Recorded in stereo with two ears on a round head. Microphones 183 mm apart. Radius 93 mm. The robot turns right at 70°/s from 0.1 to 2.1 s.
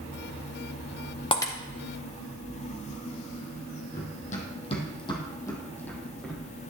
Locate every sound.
1.3 s breaking glass: 25° left (ahead or behind), 1.1 m; by 1.5 s 10° left (ahead or behind), 1.1 m
3.9 s running footsteps: 45° left (ahead or behind), 2.5 m; by 6.4 s 5° left (ahead or behind), 3.5 m